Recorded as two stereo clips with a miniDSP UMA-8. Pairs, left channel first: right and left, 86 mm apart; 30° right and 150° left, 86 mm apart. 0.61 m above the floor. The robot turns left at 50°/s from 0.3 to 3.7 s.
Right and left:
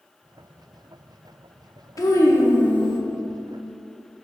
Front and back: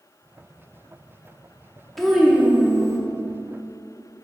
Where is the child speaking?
115° right, 0.6 m; by 3.0 s 170° right, 0.6 m.